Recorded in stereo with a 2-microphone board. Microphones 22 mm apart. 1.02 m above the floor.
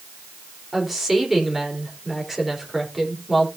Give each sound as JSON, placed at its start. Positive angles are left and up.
{"t": 0.7, "sound": "a woman speaking", "side_deg": -15, "distance_m": 3.5}